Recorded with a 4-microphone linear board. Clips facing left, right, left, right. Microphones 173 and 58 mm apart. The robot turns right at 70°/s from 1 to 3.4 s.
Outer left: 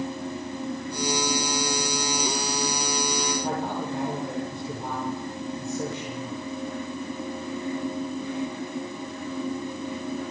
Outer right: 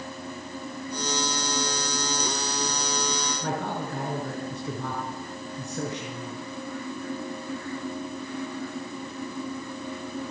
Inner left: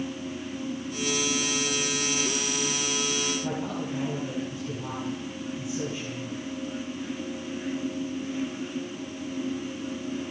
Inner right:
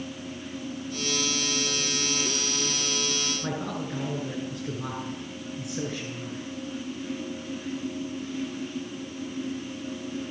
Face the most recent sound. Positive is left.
turn(degrees=-75)  # may be behind; listen again after turning